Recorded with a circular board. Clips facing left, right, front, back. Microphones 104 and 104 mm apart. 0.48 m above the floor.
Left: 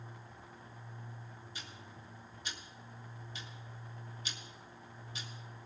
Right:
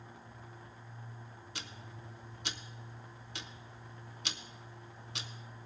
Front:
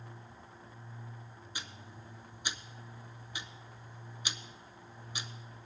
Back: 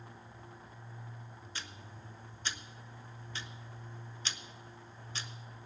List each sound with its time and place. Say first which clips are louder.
1.6 s ticking: right 5 dB, front 1 dB; 75° right, 0.7 m